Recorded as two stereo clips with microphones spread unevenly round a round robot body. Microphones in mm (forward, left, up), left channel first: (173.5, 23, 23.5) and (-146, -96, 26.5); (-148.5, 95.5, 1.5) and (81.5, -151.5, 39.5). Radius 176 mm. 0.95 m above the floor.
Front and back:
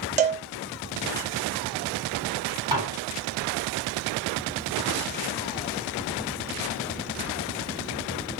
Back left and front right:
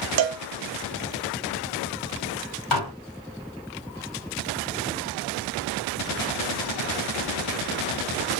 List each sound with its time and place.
0.2 s a cowbell: 90° right, 0.7 m
2.7 s dishes clattering: 125° left, 1.1 m